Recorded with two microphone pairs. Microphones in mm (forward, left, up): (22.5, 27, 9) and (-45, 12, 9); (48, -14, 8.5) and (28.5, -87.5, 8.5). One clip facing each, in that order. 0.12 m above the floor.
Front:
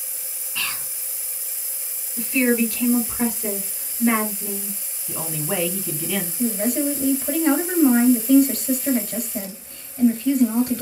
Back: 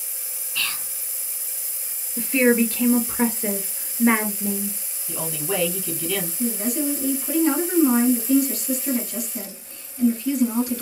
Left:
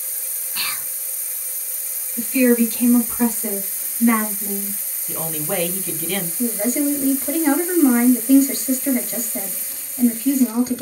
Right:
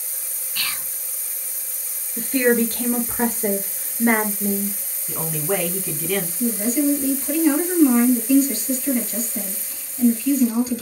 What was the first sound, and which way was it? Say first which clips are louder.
Whispering: even, left 1 dB; 70° left.